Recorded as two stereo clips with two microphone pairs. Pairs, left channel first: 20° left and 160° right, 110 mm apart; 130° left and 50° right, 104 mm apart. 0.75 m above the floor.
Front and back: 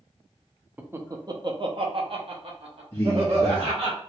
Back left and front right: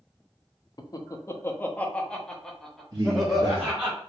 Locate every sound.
0.8 s laughter: 140° left, 0.6 m; by 3.9 s 135° right, 1.7 m
2.9 s a man speaking: 25° right, 1.1 m